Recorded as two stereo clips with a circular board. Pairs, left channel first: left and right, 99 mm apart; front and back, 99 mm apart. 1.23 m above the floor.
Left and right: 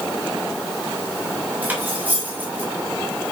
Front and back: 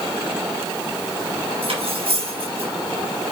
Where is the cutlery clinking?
160° right, 3.5 m.